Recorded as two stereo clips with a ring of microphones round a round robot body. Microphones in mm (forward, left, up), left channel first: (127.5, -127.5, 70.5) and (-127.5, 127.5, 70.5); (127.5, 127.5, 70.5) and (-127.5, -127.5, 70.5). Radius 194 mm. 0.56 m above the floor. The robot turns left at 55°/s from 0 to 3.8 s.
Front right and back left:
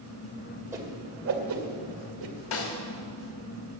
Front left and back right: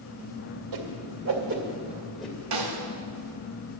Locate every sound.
0.7 s a whoosh: 145° right, 2 m; by 2.4 s 125° left, 2 m
2.5 s a snare drum: 90° right, 1.8 m; by 2.8 s 105° right, 1.8 m